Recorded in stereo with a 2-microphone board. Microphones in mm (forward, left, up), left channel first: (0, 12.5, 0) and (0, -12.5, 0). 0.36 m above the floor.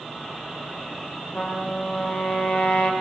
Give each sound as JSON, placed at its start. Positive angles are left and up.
{"t": 1.4, "sound": "a trumpet", "side_deg": 50, "distance_m": 4.5}